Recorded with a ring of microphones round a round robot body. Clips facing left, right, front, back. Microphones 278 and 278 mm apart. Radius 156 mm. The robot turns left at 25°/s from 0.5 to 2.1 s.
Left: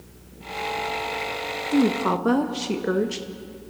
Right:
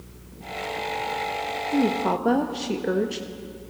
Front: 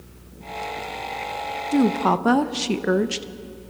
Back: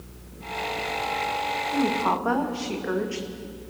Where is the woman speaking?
20° left, 0.7 m; by 3.3 s 15° left, 0.7 m.